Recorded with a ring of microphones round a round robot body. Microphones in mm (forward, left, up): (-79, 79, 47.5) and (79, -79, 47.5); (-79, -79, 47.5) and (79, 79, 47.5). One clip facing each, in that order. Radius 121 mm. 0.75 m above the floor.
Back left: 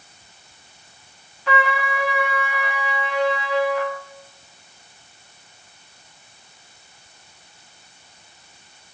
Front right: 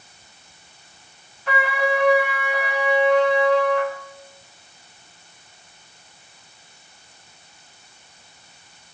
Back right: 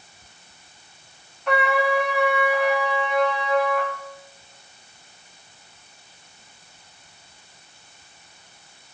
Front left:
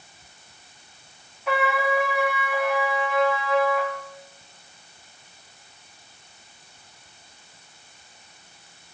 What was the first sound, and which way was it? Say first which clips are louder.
A trumpet: front right 1 dB, back right 2 dB; 130° left.